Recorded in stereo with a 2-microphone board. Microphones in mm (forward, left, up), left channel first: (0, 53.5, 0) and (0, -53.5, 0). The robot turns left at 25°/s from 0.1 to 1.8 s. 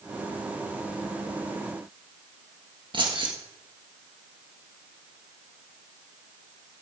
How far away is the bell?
No bell in this recording.